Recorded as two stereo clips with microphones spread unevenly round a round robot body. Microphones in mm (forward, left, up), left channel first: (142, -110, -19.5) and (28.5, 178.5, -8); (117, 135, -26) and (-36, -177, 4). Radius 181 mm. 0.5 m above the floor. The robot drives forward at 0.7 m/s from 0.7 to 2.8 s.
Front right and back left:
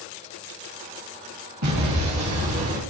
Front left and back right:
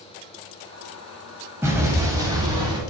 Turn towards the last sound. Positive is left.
turn(degrees=165)